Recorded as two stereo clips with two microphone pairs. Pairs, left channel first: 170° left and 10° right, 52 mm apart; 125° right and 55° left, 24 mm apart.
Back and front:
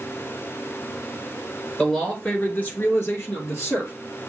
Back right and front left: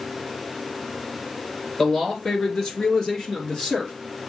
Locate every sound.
1.8 s a man speaking: 140° right, 1.5 m; by 3.9 s straight behind, 2.5 m